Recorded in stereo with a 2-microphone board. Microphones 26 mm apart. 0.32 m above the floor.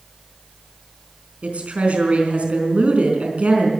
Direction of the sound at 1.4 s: 55° right (ahead or behind).